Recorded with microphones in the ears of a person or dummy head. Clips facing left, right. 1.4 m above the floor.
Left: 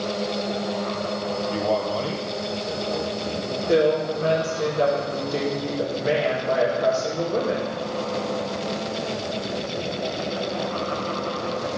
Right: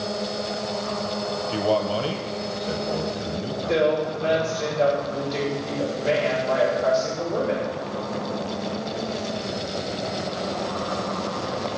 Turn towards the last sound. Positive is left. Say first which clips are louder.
# left 2 dB
turn(degrees=45)  # may be behind; listen again after turning